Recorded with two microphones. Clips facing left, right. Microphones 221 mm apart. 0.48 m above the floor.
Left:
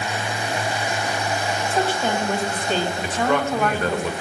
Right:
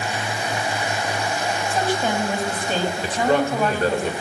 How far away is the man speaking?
About 1.9 m.